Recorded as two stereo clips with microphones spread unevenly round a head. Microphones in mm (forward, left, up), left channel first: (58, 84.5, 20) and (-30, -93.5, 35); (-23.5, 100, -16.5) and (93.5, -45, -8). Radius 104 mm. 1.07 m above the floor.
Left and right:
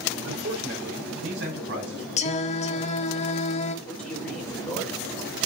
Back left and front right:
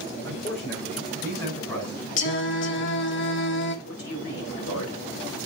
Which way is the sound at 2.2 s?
115° left.